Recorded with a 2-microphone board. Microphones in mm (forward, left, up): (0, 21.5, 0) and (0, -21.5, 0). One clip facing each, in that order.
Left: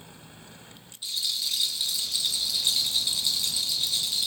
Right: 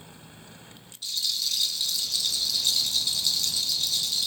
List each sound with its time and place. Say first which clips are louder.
1.0 s a rattle: even; 20° left (ahead or behind), 0.5 m